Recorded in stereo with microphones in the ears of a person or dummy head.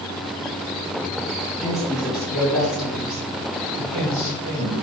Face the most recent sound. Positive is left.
turn(degrees=-40)  # may be behind; listen again after turning